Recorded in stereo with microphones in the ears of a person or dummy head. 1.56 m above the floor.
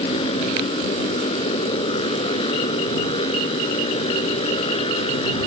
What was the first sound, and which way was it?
A motorcycle, 30° left (ahead or behind).